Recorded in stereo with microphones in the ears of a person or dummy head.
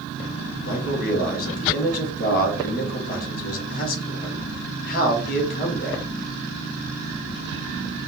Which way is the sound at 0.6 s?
50° left (ahead or behind).